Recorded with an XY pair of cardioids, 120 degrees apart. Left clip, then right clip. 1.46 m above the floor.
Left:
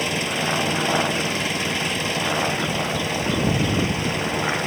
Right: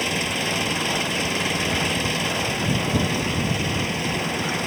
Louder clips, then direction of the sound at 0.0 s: Left 1 dB; straight ahead.